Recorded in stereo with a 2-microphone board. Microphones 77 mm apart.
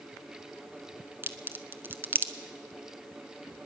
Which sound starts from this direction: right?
A crack, at 1.2 s.